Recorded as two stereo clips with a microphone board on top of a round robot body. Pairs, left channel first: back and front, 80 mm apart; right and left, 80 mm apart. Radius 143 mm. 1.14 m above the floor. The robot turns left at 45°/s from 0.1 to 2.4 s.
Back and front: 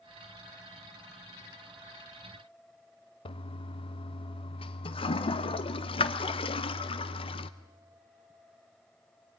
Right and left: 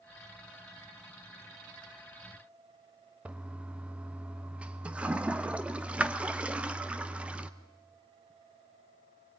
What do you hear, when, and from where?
3.2 s a toilet flushing: 165° left, 0.8 m